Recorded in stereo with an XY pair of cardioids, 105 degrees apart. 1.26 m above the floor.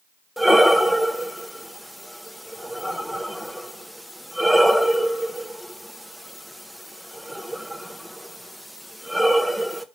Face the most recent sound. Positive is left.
turn(degrees=0)